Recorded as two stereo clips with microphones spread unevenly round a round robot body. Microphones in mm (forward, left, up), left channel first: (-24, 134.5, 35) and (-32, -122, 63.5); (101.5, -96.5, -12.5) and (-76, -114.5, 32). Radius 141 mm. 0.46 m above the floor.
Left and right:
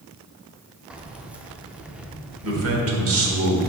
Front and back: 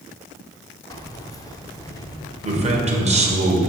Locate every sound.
0.9 s keys jangling: straight ahead, 0.6 m
2.4 s a man speaking: 115° right, 1.7 m